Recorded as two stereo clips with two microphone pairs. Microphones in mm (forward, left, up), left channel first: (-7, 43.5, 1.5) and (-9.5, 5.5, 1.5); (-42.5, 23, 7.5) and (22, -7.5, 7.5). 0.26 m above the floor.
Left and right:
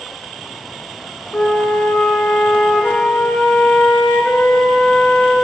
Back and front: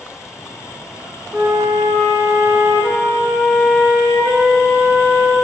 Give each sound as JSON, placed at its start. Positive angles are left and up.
{"t": 1.3, "sound": "a flute", "azimuth_deg": 40, "distance_m": 3.0}